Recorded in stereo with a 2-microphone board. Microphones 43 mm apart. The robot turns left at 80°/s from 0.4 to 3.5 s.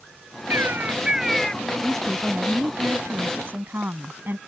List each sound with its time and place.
0.5 s a bird: 110° right; by 1.6 s 160° left
1.8 s a woman speaking: 20° left; by 4.4 s 115° right